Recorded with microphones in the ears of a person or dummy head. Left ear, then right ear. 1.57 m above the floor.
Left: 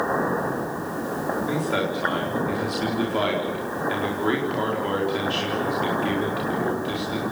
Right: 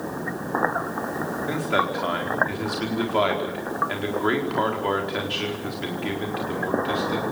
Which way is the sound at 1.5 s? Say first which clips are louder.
Right 5 dB; 20° right (ahead or behind).